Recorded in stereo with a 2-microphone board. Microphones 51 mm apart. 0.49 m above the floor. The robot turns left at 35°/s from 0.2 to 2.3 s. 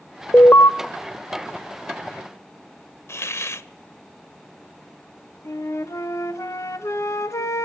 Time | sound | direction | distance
0.3 | an alarm | 45° left (ahead or behind) | 1.0 m
3.1 | a hiss | 60° left (ahead or behind) | 0.5 m
5.5 | a flute | 90° left | 0.9 m